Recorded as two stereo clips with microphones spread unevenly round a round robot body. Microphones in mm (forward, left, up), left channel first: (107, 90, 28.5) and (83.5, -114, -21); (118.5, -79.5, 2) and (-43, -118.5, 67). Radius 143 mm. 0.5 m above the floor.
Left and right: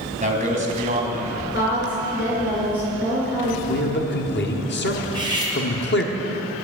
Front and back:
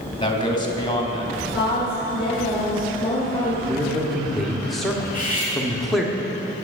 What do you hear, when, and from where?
0.2 s a man speaking: 45° right, 3.5 m
1.5 s a woman speaking: 45° left, 6 m
3.7 s a man speaking: 70° left, 1.5 m
5.0 s cutlery clinking: 25° right, 4.5 m